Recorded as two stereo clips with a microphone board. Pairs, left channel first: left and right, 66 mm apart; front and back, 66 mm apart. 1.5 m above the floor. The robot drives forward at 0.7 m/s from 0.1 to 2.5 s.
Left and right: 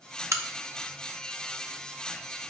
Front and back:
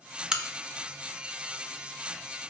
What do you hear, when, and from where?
0.3 s a crack: 100° right, 0.8 m; by 2.5 s 160° right, 1.8 m